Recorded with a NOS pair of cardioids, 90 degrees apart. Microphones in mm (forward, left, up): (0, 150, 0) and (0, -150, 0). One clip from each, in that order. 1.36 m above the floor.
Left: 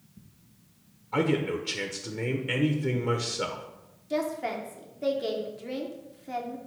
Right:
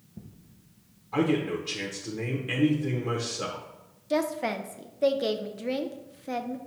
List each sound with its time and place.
1.1 s a man speaking: 10° left, 0.6 m
4.1 s a woman speaking: 25° right, 0.6 m